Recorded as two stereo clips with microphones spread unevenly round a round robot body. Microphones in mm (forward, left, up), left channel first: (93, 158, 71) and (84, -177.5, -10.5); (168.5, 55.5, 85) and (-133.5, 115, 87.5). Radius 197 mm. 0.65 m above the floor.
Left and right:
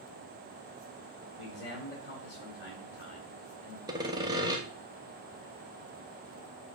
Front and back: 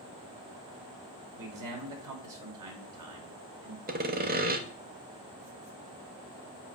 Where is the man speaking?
155° left, 2.5 m.